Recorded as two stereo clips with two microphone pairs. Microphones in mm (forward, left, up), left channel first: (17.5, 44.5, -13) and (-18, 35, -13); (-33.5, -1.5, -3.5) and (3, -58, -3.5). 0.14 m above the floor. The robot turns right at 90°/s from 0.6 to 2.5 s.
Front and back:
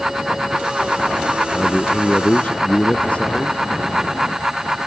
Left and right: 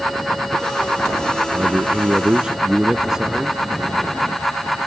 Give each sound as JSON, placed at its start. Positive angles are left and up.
{"t": 1.5, "sound": "a man speaking", "azimuth_deg": -65}